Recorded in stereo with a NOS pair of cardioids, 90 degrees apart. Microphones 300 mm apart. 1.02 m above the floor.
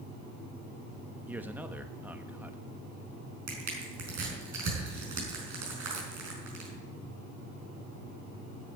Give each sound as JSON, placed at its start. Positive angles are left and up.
{"t": 1.3, "sound": "a man speaking", "azimuth_deg": -5, "distance_m": 1.0}
{"t": 3.5, "sound": "crushing", "azimuth_deg": -65, "distance_m": 5.5}